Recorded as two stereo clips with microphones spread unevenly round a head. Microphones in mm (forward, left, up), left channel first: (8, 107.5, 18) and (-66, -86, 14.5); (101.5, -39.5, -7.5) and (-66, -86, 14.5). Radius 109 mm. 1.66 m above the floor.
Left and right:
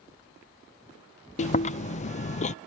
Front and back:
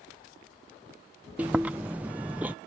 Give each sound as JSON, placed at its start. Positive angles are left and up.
{"t": 1.4, "sound": "chewing", "azimuth_deg": 120}